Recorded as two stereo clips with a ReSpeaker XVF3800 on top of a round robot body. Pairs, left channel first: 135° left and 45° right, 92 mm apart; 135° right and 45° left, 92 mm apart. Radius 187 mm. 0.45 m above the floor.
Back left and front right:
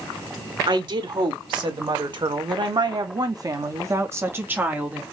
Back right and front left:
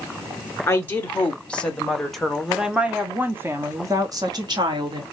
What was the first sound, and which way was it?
A woman speaking, 70° right.